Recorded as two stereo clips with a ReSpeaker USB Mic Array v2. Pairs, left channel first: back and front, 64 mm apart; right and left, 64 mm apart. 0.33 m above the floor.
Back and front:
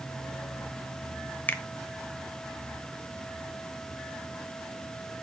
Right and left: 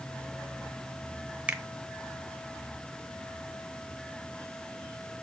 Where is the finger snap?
145° left, 0.8 m.